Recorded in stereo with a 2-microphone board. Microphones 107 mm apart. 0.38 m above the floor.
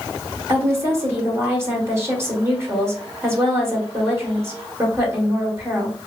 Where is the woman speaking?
25° right (ahead or behind), 1.4 m.